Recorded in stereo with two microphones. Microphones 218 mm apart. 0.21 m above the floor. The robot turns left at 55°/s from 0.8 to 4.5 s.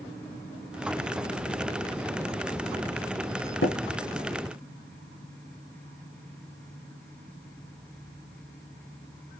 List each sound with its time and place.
3.6 s tapping: 65° left (ahead or behind), 0.7 m; by 3.8 s 70° left (ahead or behind), 0.7 m